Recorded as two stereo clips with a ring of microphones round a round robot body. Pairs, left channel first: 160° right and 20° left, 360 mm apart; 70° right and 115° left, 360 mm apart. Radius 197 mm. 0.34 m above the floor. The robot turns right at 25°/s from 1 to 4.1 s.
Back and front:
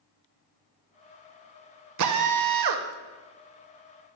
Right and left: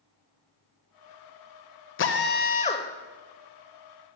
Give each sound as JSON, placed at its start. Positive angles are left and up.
{"t": 2.0, "sound": "a drill", "azimuth_deg": -15, "distance_m": 0.8}